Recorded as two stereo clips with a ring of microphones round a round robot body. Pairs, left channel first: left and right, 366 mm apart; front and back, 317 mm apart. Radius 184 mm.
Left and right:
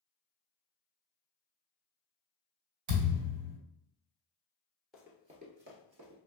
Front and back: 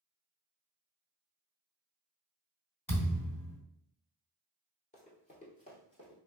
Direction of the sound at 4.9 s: Straight ahead.